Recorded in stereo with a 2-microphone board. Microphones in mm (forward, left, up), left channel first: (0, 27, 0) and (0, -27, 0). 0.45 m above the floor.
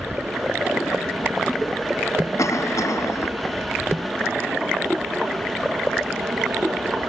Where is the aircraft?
45° right (ahead or behind); by 7.1 s 60° right (ahead or behind).